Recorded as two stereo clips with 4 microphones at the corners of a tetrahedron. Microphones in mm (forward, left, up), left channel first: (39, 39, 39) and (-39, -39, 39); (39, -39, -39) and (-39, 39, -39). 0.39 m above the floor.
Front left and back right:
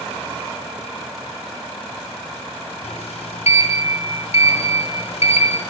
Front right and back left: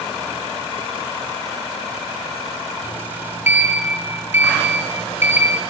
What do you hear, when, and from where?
2.8 s a sliding door: 65° left, 2.0 m